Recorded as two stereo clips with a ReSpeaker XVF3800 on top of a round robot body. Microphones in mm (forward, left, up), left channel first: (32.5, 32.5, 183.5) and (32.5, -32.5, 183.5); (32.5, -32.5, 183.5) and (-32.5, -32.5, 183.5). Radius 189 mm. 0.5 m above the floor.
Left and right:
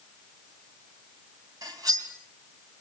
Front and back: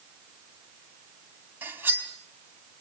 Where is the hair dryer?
No hair dryer in this recording.